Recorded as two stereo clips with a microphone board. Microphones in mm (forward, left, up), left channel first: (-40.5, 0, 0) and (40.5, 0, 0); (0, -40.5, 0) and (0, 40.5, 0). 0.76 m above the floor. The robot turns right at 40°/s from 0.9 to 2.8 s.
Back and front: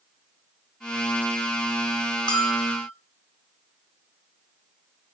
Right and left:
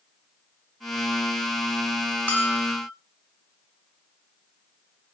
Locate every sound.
2.3 s a bell: 165° right, 2 m; by 2.9 s 145° right, 2 m